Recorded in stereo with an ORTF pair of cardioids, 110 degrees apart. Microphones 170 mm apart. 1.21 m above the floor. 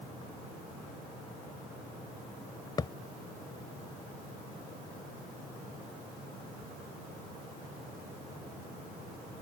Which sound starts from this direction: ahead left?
A thud, at 2.8 s.